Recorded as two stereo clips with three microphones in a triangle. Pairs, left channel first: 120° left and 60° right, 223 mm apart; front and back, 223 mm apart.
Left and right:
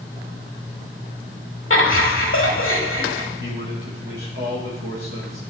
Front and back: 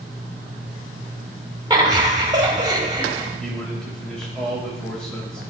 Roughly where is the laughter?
Left.